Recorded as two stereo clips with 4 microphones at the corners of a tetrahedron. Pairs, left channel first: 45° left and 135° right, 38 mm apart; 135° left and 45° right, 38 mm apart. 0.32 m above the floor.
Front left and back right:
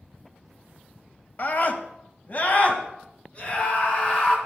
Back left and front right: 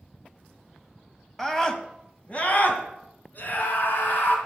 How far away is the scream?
About 1.5 m.